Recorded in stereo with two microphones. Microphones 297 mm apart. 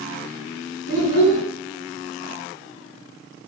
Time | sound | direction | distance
0.9 | a child speaking | 65° left (ahead or behind) | 2 m